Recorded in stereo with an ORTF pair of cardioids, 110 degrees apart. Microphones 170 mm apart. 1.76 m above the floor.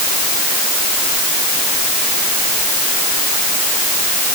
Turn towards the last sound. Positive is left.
No sound to turn to.